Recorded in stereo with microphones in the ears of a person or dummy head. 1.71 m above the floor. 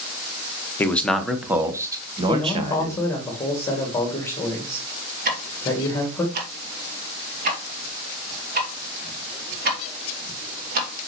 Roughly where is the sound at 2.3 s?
Centre.